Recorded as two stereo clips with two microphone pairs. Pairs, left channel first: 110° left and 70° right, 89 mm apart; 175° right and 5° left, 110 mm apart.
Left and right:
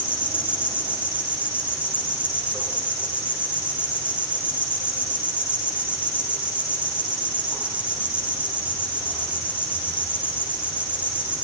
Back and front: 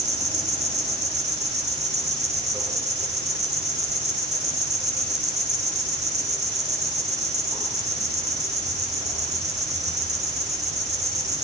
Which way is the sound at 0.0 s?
5° left.